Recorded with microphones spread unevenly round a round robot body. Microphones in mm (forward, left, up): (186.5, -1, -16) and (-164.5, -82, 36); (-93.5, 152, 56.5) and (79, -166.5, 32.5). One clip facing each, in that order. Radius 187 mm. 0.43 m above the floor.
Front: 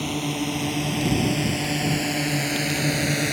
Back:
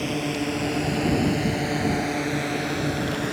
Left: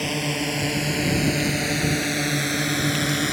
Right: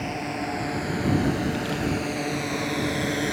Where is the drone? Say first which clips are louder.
Back 1 dB, left 4 dB; 90° left; by 3.3 s 55° left.